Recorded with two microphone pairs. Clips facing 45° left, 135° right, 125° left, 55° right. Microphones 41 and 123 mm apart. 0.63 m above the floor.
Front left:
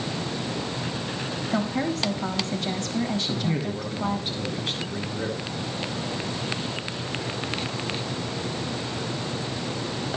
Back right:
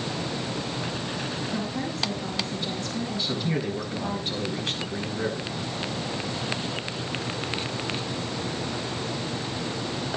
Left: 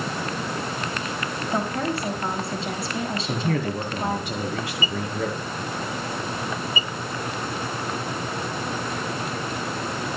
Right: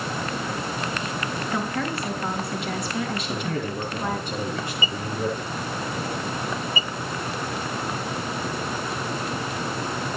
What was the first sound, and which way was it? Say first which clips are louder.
A woman speaking: front left 4 dB, left 3 dB; 65° left.